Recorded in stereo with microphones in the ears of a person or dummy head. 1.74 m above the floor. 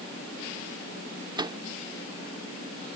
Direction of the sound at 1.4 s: 25° right (ahead or behind).